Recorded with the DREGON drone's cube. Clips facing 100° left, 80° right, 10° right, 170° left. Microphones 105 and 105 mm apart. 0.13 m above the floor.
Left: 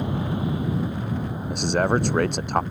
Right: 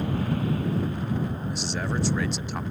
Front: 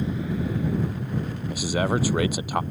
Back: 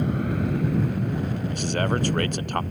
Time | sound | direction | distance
0.0 | an aircraft | 170° left | ?
1.5 | a man speaking | 70° left | ?